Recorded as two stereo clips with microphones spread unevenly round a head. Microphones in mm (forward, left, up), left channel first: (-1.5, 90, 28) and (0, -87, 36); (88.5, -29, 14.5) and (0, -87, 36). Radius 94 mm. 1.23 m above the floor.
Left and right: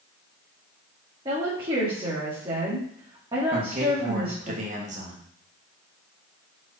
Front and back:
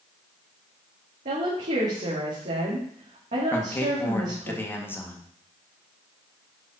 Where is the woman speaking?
155° right, 2 m.